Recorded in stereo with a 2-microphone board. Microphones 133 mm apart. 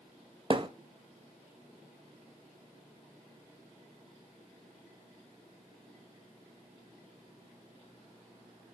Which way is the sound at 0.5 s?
35° right (ahead or behind).